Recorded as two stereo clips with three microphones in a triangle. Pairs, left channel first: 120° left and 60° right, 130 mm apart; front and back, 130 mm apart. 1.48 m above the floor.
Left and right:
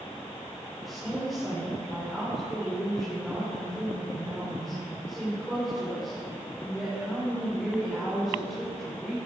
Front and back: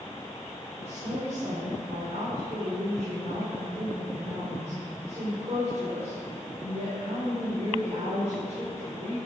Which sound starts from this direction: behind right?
A woman speaking, at 0.8 s.